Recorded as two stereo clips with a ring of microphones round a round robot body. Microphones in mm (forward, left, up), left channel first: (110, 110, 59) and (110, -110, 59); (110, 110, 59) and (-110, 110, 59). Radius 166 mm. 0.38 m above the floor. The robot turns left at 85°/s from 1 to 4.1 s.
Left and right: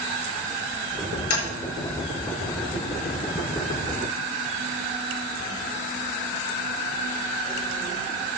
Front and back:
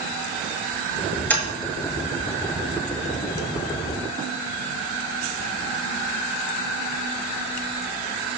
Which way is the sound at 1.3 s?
85° left.